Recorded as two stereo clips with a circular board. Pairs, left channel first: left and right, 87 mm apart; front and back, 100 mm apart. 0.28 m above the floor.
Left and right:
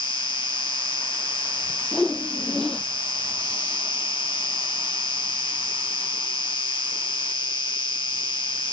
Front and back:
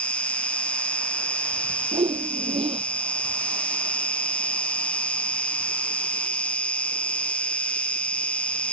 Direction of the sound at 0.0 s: 75° left.